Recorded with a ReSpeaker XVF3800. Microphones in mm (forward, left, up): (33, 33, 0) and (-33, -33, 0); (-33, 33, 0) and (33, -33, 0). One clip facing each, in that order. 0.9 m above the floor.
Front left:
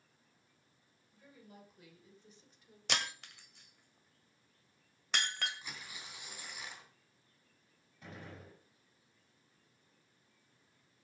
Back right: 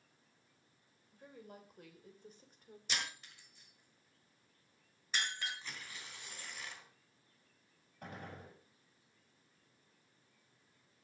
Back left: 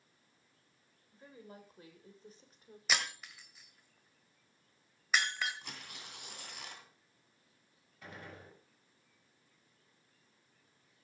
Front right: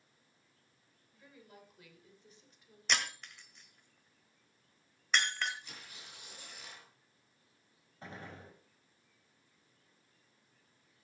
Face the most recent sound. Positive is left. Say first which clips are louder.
# back right 2 dB, front right 2 dB
turn(degrees=-105)